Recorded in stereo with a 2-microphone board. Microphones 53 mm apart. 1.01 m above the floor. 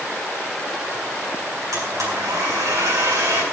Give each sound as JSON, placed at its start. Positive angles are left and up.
{"t": 1.7, "sound": "a blender", "side_deg": -85, "distance_m": 8.0}